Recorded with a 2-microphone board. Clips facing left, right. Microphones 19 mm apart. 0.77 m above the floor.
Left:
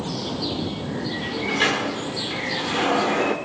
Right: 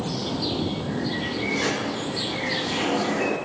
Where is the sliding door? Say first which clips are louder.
Left 6 dB; 65° left (ahead or behind), 2.5 m.